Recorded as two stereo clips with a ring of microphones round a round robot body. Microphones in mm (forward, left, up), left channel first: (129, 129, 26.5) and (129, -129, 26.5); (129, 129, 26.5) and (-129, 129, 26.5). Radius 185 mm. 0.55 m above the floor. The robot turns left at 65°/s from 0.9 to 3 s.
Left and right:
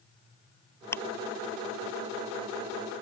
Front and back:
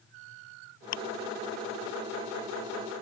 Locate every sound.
0.9 s ticking: 10° left; by 1.0 s 5° left